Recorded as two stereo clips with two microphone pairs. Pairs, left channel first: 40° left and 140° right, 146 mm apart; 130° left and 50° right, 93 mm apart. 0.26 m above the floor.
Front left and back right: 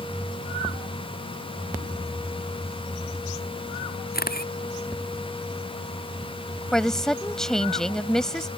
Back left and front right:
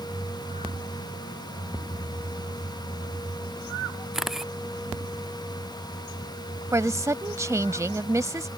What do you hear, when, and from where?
4.1 s a camera shutter: 40° left
6.7 s a woman speaking: 45° right